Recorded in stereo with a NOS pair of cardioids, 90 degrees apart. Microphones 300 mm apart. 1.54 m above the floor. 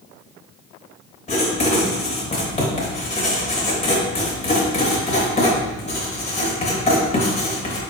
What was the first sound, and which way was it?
Writing, 20° left.